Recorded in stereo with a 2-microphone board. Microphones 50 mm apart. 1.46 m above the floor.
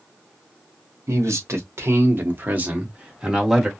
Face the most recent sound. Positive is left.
turn(degrees=-5)  # may be behind; listen again after turning